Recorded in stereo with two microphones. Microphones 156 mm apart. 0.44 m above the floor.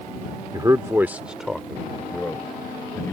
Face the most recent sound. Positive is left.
turn(degrees=15)  # may be behind; listen again after turning